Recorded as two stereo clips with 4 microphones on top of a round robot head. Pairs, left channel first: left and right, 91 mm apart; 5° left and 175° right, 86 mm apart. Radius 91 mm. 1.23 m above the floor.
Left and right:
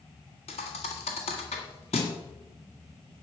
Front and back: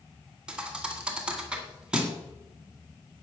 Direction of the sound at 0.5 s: 110° left.